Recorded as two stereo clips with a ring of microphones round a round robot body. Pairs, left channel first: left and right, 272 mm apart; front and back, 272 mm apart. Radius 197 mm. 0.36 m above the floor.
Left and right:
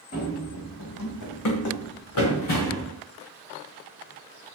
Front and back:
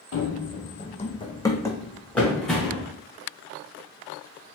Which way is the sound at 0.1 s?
30° left.